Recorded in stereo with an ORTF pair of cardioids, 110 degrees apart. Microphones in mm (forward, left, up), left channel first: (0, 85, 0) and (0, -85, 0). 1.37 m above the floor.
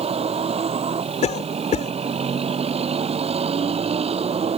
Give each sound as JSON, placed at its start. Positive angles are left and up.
{"t": 0.0, "sound": "a vehicle", "azimuth_deg": -35}
{"t": 1.2, "sound": "a cough", "azimuth_deg": 40}